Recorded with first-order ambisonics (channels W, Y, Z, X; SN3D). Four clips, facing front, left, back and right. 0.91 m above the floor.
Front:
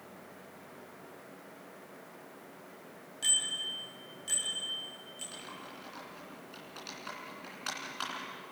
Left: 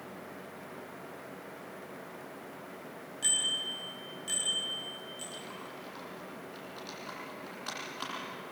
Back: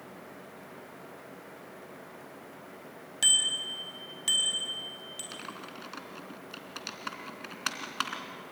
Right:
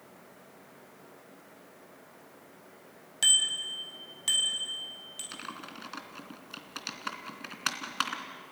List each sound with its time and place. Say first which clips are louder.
3.2 s a bicycle bell: right 5 dB, back 6 dB; 135° right, 4 m; by 5.2 s 140° right, 7 m
5.3 s typing on a keyboard: right 1 dB, back 4 dB; 125° right, 3 m